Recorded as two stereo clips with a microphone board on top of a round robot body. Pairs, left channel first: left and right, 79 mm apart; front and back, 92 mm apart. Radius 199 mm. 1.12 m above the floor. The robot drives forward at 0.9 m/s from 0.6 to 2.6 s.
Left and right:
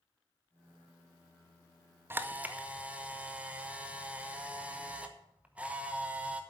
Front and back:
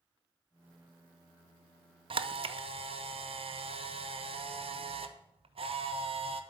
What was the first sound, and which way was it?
A camera shutter, 155° right.